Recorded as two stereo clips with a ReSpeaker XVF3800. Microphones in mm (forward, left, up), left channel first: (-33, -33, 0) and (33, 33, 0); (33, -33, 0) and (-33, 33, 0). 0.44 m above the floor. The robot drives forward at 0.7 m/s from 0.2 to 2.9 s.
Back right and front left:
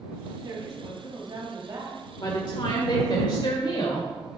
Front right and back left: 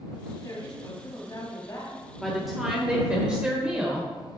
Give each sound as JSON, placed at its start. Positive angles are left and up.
{"t": 0.4, "sound": "a woman speaking", "azimuth_deg": 0, "distance_m": 3.5}
{"t": 2.2, "sound": "a woman speaking", "azimuth_deg": -130, "distance_m": 1.2}